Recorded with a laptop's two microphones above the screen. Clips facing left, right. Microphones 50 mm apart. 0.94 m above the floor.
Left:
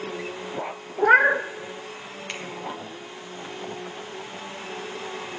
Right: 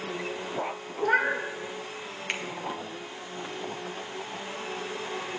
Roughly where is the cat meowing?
Left.